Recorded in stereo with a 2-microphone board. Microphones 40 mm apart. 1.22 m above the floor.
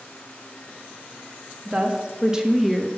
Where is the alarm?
I don't hear an alarm.